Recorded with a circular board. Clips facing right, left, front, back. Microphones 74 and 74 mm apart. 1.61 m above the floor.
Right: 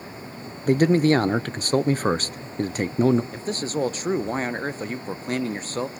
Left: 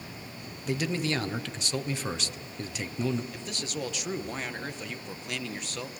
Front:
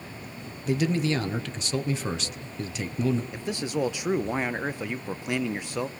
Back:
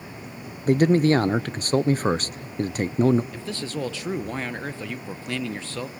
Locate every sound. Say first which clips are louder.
0.7 s a man speaking: right 12 dB, back 8 dB; 135° right, 0.7 m
3.3 s a man speaking: right 9 dB, front 2 dB; 65° right, 0.7 m